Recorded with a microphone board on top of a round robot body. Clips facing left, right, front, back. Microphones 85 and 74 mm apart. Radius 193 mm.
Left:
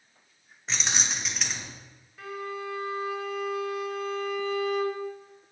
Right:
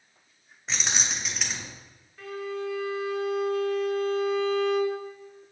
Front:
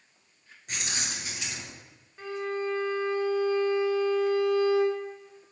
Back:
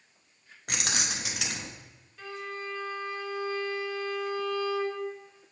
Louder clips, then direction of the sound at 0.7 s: Even, back 3 dB; straight behind.